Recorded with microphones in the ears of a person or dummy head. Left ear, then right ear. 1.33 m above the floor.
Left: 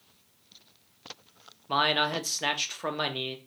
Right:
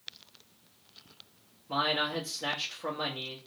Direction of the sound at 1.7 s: 65° left (ahead or behind).